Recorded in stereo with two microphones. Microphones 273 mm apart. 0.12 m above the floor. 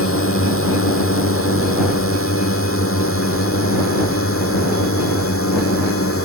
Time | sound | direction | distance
0.0 | a drone | 50° left (ahead or behind) | ?